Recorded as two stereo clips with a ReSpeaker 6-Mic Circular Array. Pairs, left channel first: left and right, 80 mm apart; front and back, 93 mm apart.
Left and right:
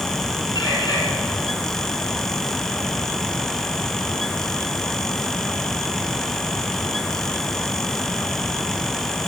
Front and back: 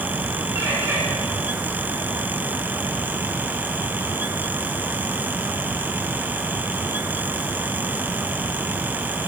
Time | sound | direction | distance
0.6 | a bird | 115° left | 3.5 m